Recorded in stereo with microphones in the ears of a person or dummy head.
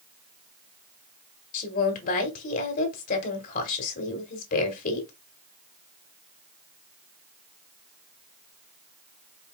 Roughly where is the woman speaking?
Left.